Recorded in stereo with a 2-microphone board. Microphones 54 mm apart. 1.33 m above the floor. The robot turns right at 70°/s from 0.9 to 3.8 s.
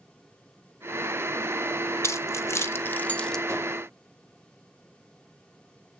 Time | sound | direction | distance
2.0 | keys jangling | 60° left (ahead or behind) | 0.8 m
3.5 | a whoosh | 60° right (ahead or behind) | 4 m